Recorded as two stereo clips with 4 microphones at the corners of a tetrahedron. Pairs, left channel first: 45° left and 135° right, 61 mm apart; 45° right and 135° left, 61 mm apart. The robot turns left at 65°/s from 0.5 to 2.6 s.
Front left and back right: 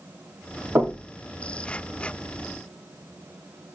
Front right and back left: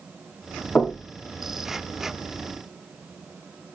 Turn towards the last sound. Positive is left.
turn(degrees=140)